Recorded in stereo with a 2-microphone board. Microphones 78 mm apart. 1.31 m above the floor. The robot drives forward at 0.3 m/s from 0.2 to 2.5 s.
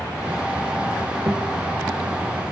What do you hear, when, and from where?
1.3 s a guitar: 35° right (ahead or behind), 1.3 m